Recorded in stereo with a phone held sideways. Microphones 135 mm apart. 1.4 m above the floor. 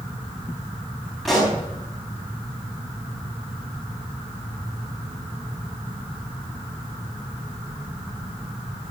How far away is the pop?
About 4.5 m.